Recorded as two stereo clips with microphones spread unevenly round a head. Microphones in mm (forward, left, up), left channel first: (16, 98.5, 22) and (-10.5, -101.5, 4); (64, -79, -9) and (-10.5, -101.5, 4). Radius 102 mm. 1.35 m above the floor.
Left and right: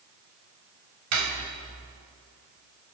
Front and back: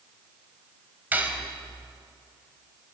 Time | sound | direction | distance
1.1 | cutlery clinking | 100° right | 4.5 m